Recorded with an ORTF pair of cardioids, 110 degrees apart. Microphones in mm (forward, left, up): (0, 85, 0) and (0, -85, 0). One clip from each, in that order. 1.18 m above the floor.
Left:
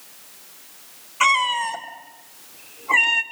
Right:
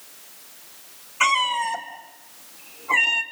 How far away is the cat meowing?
About 2.5 m.